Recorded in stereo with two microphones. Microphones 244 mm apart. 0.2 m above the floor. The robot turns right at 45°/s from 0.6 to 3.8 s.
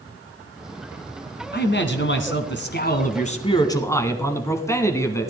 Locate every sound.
1.5 s a man speaking: 60° left, 1.5 m; by 5.3 s 165° left, 1.5 m